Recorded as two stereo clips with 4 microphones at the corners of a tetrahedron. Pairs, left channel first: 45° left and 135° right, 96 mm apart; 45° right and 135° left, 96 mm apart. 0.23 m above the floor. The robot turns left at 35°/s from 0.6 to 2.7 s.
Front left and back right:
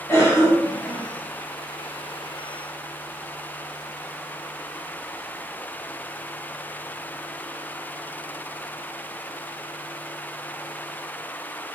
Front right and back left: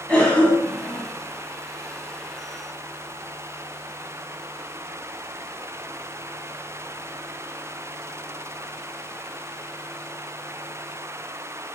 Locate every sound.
0.1 s a cough: 20° left, 1.1 m; by 1.0 s 5° left, 1.1 m